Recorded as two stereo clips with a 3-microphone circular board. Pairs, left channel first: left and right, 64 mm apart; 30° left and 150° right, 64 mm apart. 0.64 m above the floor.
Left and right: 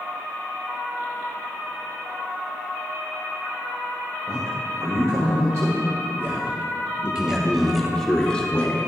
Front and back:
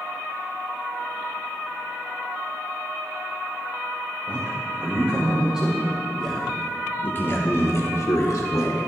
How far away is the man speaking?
About 1.8 m.